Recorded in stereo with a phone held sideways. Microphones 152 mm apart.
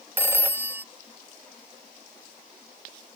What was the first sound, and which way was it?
A phone ringing, 15° right (ahead or behind).